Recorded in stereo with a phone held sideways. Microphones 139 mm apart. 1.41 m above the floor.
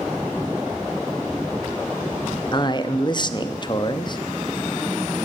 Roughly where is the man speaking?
Left.